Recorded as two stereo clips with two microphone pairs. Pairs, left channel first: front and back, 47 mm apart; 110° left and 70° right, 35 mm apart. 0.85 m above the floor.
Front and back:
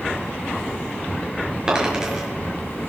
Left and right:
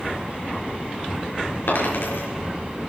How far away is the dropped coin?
About 6 m.